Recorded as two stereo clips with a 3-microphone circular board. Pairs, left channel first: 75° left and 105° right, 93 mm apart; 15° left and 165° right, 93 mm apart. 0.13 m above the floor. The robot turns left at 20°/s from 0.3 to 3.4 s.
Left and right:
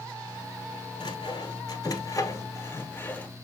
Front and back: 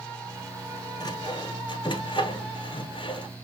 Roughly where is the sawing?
Ahead left.